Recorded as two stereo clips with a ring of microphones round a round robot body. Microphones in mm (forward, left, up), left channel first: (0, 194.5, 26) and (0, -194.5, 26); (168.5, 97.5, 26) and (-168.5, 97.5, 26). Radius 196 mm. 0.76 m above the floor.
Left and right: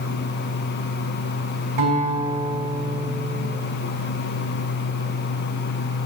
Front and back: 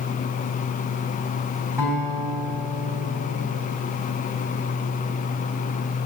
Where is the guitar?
100° right, 4 m.